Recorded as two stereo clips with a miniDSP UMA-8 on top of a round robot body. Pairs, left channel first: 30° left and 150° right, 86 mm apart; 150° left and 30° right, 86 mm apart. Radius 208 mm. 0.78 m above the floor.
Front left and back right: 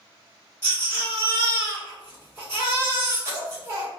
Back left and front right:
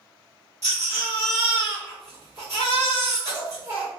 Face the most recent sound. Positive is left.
turn(degrees=-85)